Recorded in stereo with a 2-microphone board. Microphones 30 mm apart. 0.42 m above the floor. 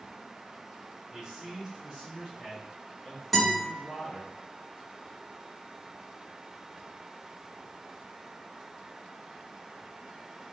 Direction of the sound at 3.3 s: 5° left (ahead or behind).